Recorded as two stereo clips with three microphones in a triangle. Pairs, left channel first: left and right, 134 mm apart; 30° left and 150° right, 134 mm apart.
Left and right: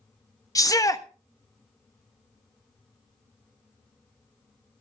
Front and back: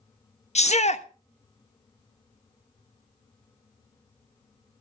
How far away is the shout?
About 1.0 m.